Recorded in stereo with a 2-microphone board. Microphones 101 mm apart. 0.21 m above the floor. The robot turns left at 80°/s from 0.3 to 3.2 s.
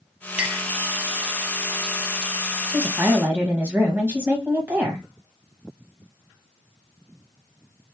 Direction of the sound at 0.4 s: 10° right (ahead or behind).